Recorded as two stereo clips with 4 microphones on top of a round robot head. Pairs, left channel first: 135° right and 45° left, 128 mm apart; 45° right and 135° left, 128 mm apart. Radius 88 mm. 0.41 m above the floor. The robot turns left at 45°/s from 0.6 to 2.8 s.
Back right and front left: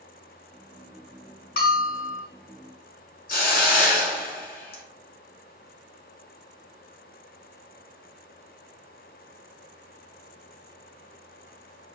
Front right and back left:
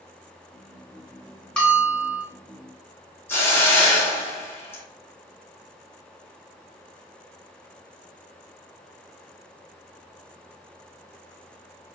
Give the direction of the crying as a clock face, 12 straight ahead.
No crying in this recording.